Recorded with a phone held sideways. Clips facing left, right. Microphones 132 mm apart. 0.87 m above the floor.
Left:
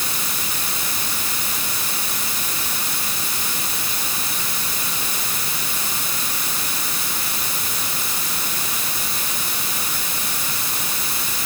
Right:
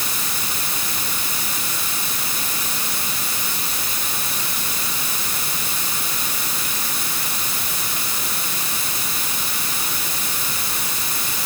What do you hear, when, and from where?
Only background noise.